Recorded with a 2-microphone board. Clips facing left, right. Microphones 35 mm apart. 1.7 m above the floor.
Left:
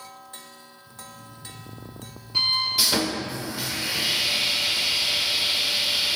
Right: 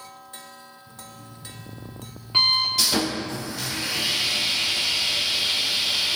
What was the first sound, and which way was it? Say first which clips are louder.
An alarm clock: left 3 dB; 50° right (ahead or behind).